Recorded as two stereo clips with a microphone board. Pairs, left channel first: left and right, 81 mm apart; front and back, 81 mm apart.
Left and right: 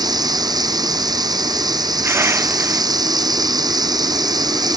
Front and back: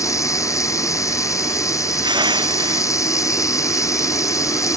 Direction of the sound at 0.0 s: 50° right.